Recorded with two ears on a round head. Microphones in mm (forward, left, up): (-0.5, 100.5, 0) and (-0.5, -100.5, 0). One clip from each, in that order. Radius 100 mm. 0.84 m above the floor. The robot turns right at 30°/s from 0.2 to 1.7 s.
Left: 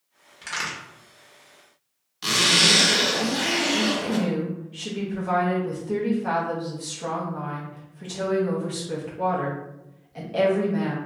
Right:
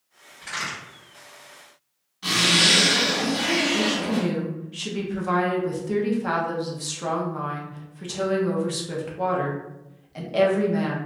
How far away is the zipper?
About 1.3 m.